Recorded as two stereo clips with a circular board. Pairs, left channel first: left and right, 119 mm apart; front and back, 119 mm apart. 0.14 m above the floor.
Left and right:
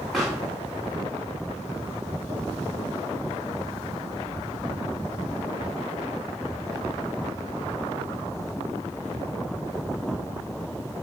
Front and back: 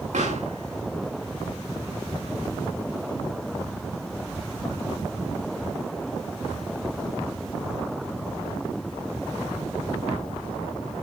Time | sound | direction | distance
0.1 | a pop | straight behind | 5.5 m